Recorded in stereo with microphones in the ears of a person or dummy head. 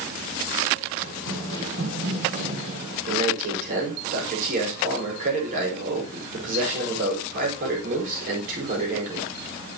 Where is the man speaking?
45° right (ahead or behind), 5.5 m.